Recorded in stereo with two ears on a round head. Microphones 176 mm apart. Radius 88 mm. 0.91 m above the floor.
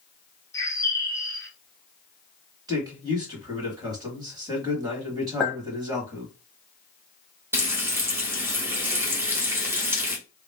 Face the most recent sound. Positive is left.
turn(degrees=-15)  # may be behind; listen again after turning